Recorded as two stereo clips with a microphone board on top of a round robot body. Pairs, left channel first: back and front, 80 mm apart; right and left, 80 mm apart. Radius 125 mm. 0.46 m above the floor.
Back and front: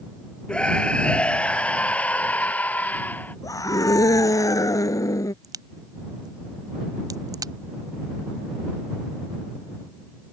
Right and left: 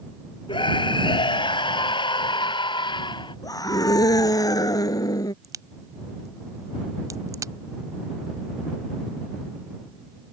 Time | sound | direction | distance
0.5 | a scream | 100° right | ?
3.4 | a scream | 130° right | ?
5.4 | a crack | 45° left | ?